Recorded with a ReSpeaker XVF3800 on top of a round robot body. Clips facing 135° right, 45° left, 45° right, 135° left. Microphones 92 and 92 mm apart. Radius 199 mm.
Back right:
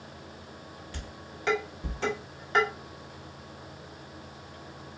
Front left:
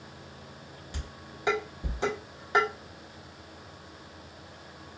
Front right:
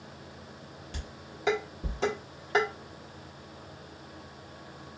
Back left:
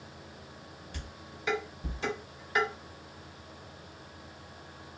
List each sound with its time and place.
0.9 s dishes clattering: 25° right, 1.7 m